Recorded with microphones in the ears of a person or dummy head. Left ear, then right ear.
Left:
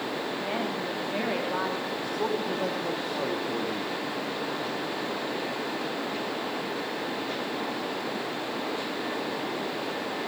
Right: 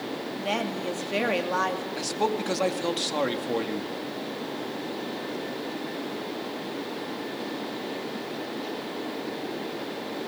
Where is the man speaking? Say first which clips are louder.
Right 4 dB; 70° right (ahead or behind), 2.5 m.